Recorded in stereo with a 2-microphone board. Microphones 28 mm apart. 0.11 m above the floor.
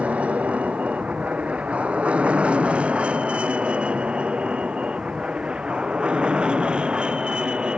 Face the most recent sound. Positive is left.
turn(degrees=-35)  # may be behind; listen again after turning